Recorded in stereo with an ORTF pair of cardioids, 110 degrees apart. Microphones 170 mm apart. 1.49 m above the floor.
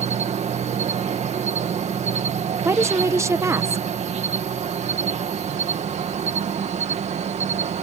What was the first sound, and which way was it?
An insect, 40° right.